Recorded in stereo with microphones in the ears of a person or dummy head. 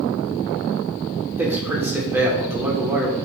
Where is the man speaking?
10° right (ahead or behind), 2.0 m.